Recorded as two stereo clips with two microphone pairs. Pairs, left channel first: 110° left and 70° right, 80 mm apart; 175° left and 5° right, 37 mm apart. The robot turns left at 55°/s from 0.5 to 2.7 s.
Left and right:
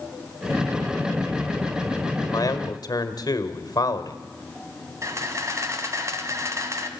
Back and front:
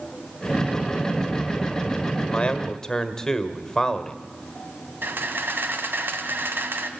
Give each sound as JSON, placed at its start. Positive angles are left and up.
{"t": 2.3, "sound": "a man speaking", "azimuth_deg": 135, "distance_m": 1.6}
{"t": 5.0, "sound": "a camera shutter", "azimuth_deg": -15, "distance_m": 1.8}